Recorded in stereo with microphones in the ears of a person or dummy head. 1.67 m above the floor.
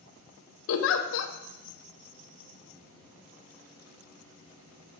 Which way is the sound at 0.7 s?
70° left (ahead or behind).